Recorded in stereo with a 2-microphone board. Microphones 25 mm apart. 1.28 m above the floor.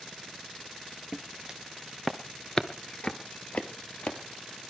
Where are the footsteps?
30° right (ahead or behind), 1.5 m; by 4.2 s 55° left (ahead or behind), 2.5 m.